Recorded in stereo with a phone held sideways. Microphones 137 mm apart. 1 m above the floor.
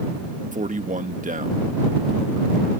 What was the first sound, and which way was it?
A man speaking, 70° right (ahead or behind).